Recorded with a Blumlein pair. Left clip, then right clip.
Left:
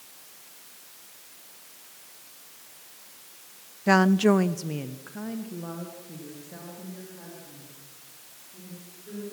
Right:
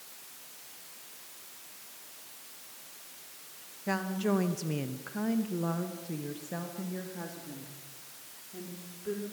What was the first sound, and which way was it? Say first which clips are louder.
A woman speaking: left 11 dB; 65° left.